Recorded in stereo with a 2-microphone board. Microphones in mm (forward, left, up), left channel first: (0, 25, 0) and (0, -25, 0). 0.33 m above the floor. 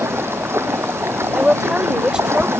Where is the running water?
60° right (ahead or behind).